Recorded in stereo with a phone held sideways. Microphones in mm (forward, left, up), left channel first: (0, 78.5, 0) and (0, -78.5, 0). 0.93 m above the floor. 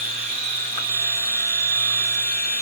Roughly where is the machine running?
Right.